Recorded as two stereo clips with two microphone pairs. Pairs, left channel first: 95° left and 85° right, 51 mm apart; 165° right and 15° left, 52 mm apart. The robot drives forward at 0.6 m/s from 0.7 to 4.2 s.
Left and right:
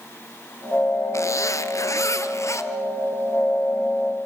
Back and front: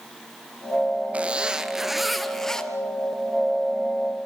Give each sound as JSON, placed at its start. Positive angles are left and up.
{"t": 1.1, "sound": "a zipper", "azimuth_deg": 80, "distance_m": 1.3}